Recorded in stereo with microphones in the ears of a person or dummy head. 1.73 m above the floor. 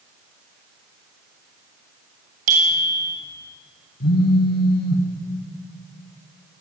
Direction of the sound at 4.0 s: 60° left (ahead or behind).